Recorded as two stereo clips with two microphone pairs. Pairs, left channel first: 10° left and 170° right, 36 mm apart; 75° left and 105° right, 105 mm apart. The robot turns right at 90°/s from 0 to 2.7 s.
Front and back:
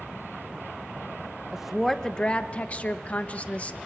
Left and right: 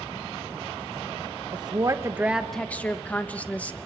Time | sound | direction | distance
1.5 | a woman speaking | 95° right | 0.9 m